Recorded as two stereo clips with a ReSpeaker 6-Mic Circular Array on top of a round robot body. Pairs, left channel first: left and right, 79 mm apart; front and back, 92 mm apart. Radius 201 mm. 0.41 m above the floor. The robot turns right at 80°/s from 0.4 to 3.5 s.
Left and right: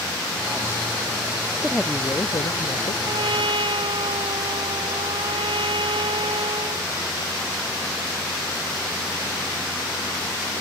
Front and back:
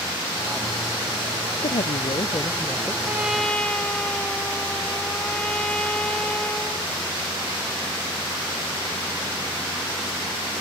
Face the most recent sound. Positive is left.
turn(degrees=-80)